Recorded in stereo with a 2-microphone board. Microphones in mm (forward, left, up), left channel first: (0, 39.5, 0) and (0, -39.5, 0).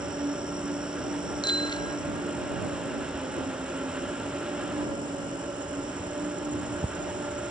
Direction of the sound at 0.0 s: 70° right (ahead or behind).